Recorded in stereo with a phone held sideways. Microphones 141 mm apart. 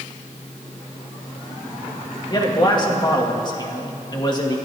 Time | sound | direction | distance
2.3 | a man speaking | 30° left (ahead or behind) | 2 m